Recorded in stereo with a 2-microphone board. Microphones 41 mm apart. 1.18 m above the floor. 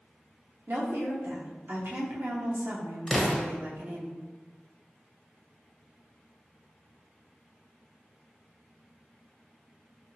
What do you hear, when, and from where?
0.7 s a woman speaking: 65° right (ahead or behind), 0.8 m
3.1 s an explosion: 20° left (ahead or behind), 0.6 m